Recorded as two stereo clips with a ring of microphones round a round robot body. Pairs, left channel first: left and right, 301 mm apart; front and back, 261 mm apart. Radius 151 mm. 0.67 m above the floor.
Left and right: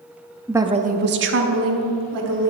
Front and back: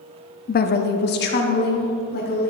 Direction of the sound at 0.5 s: 5° right.